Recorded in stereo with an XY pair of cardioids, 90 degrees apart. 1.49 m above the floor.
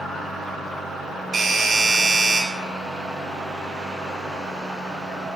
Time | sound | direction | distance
1.3 | a doorbell | 50° right | 2.0 m